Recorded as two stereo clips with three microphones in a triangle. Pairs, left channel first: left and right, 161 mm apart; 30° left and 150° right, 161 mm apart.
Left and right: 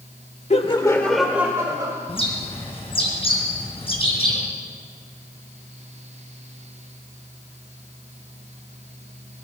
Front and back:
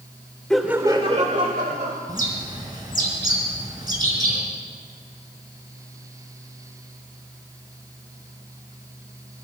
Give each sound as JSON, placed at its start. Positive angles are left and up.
{"t": 0.5, "sound": "laughter", "azimuth_deg": 115, "distance_m": 1.1}
{"t": 2.1, "sound": "a bird", "azimuth_deg": 145, "distance_m": 4.0}